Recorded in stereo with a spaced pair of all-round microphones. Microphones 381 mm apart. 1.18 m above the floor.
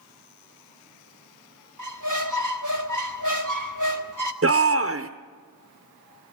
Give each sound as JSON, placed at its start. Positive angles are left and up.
{"t": 1.8, "sound": "a squeak", "side_deg": -50, "distance_m": 1.3}
{"t": 4.4, "sound": "a shout", "side_deg": -35, "distance_m": 0.8}